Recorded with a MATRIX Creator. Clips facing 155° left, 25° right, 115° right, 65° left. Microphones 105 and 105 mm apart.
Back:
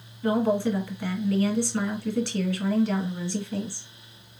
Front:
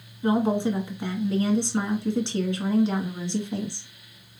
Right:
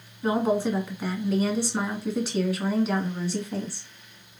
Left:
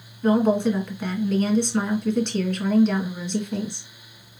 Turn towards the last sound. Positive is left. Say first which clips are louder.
# front 1 dB, left 4 dB
turn(degrees=-40)